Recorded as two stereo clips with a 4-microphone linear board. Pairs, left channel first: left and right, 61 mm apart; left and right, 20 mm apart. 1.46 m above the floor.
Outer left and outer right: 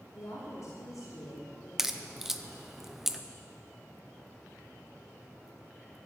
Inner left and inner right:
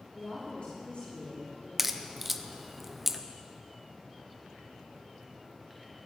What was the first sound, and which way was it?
A woman speaking, 50° left (ahead or behind).